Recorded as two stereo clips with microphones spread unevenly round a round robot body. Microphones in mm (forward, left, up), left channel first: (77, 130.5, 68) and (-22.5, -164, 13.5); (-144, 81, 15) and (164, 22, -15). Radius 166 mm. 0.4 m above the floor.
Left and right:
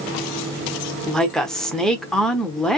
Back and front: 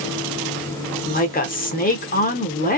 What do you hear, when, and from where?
1.1 s a woman speaking: 175° right, 0.8 m